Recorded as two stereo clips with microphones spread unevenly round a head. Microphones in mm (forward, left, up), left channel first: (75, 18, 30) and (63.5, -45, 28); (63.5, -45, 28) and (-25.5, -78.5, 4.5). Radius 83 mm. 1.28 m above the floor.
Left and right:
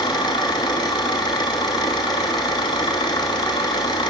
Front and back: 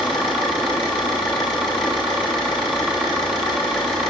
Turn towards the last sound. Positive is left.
turn(degrees=110)